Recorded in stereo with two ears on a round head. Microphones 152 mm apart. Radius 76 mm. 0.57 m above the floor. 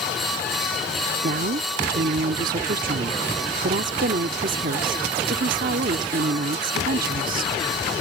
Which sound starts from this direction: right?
A woman speaking, at 1.2 s.